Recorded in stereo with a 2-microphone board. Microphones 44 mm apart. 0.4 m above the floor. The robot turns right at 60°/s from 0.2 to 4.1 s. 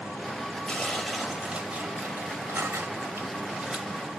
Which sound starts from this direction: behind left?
Tearing paper, at 0.7 s.